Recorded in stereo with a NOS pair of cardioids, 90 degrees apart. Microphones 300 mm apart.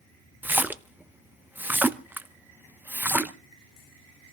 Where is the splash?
5° right, 0.7 m.